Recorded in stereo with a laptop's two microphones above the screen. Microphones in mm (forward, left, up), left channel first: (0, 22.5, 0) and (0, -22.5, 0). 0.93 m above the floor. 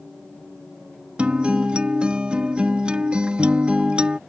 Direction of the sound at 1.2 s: 25° right (ahead or behind).